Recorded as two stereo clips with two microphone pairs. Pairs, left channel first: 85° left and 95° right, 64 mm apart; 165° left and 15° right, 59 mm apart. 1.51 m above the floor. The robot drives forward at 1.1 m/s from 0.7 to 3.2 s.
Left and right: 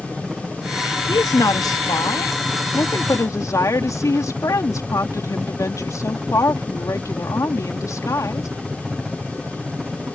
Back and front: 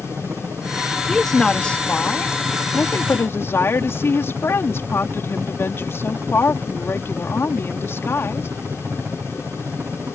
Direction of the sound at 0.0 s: 15° right.